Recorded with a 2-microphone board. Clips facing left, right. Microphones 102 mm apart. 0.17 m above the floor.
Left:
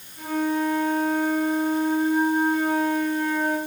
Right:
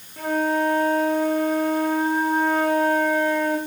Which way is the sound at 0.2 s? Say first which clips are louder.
Right 2 dB; 75° right (ahead or behind).